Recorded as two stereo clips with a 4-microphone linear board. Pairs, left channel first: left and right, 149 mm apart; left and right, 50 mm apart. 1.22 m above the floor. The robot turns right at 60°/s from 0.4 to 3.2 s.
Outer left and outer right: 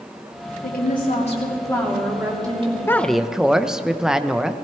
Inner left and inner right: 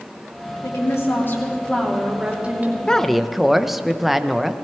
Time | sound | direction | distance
0.6 | a woman speaking | 95° left | 3 m
2.9 | a woman speaking | 15° left (ahead or behind) | 0.6 m